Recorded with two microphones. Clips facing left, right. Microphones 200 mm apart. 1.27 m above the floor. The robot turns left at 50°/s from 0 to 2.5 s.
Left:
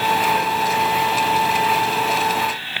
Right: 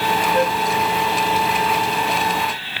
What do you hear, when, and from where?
0.3 s a flute: 60° right (ahead or behind); by 0.6 s 50° right (ahead or behind)